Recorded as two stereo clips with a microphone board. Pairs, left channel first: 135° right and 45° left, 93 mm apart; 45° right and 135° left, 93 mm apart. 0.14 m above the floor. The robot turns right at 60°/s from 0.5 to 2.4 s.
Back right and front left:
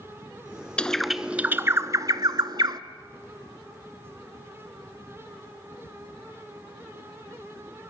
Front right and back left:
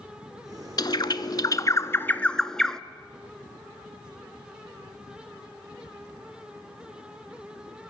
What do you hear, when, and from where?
0.8 s a bird: 60° right, 0.8 m; by 2.8 s 35° left, 0.8 m